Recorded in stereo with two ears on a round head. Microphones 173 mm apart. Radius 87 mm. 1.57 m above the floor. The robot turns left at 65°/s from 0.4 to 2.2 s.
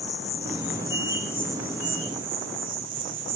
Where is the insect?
70° left, 1.8 m; by 3.4 s 45° right, 1.8 m.